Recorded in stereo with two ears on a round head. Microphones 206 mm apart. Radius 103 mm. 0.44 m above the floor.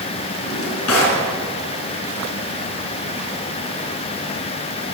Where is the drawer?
75° left (ahead or behind), 3.5 m.